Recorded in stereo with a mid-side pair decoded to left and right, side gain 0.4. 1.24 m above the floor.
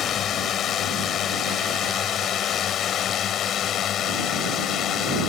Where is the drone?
70° left; by 5.3 s 75° left.